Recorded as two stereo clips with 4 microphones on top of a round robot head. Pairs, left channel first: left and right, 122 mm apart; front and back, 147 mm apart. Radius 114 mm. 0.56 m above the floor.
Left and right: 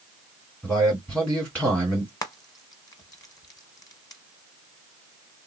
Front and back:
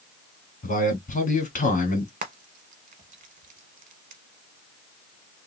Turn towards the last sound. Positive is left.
turn(degrees=150)